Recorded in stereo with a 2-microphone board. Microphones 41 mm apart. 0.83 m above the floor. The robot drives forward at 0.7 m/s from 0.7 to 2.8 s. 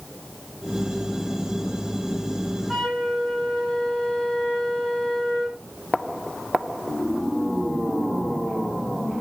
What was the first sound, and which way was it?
A flute, centre (ahead or behind).